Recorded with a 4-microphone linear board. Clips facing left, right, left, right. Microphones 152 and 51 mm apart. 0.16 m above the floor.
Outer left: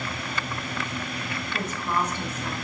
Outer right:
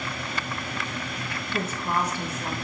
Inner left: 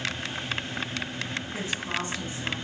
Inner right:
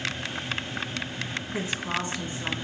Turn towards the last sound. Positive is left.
turn(degrees=-40)  # may be behind; listen again after turning